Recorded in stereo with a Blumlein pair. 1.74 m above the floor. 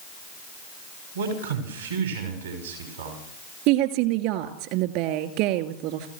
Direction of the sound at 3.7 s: 45° right.